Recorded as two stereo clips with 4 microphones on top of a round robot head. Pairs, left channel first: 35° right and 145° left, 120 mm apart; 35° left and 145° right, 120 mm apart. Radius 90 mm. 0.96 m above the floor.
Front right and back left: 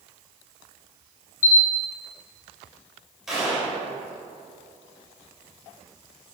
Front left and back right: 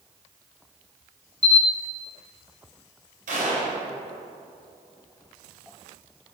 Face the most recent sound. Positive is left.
turn(degrees=-130)